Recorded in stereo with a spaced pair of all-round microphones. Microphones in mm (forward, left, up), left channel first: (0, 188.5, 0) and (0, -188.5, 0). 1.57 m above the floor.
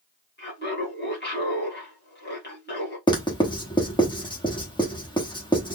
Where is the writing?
15° left (ahead or behind), 1.2 m.